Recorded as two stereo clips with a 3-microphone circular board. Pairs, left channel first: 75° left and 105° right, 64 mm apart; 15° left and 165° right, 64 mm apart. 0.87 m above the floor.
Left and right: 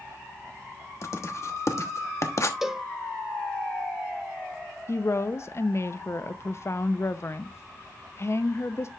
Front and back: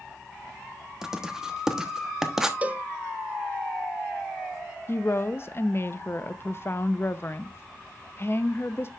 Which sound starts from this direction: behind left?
Writing, at 1.0 s.